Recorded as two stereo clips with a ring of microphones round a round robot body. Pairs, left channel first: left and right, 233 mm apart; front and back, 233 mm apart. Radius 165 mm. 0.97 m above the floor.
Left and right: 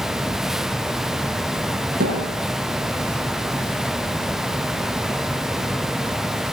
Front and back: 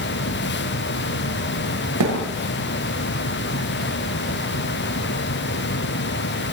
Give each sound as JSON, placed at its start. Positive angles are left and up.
{"t": 2.0, "sound": "a thud", "azimuth_deg": -155, "distance_m": 7.5}